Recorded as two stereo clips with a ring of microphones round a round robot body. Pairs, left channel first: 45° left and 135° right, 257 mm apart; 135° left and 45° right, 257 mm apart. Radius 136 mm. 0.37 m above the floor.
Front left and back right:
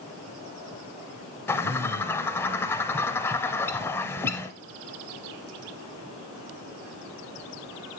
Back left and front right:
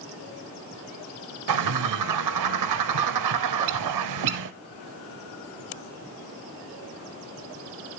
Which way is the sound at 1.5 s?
35° right.